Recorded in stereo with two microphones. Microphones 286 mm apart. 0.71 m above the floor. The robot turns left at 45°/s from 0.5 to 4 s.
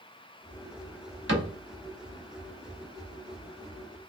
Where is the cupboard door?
40° right (ahead or behind), 1.0 m; by 1.5 s 45° right (ahead or behind), 1.0 m.